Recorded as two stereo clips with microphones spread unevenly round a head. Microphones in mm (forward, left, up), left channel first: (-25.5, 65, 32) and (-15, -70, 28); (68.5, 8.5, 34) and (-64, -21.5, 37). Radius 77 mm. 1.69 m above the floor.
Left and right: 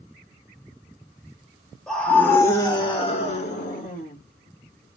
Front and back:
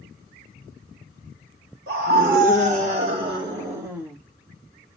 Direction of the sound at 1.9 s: Straight behind.